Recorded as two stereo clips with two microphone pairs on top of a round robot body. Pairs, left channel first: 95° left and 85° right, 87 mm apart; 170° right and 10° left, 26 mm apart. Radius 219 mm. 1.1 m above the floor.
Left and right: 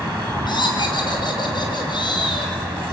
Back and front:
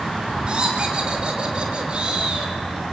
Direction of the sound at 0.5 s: 60° left.